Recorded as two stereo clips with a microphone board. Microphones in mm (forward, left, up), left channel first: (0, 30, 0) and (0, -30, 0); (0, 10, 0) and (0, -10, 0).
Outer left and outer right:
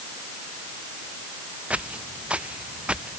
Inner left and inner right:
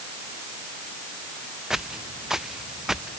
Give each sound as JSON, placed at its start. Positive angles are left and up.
{"t": 1.7, "sound": "footsteps", "side_deg": -20}